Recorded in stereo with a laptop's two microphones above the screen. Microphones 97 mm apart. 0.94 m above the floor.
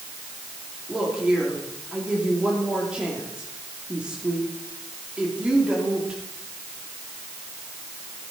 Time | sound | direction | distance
0.9 | a woman speaking | 10° right (ahead or behind) | 2.5 m